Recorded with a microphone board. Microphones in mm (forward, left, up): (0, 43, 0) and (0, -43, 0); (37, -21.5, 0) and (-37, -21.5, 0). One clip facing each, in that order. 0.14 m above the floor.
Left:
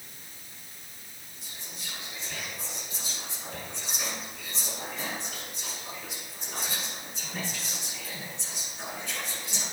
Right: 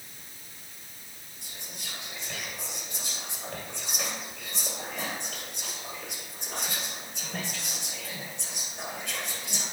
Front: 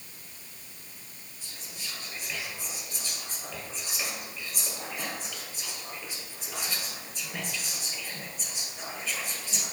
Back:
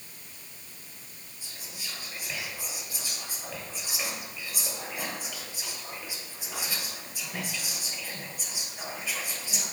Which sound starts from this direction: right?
Whispering, at 1.4 s.